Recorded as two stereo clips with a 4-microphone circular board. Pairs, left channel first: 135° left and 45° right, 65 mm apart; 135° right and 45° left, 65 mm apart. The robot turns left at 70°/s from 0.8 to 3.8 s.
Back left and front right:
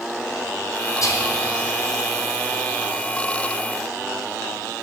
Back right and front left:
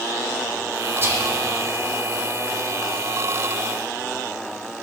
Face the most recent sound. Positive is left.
turn(degrees=-100)